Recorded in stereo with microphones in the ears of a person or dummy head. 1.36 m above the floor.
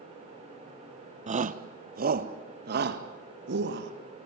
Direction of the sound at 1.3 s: 40° right (ahead or behind).